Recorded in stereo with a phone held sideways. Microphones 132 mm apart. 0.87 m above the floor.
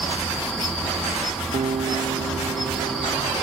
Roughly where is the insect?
Centre.